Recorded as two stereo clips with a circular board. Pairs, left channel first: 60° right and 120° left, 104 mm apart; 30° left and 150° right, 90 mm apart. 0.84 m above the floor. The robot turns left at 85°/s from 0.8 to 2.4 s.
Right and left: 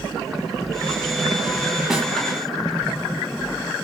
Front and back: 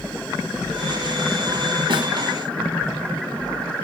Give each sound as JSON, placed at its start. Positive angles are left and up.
{"t": 1.9, "sound": "a snare drum", "azimuth_deg": -155, "distance_m": 1.6}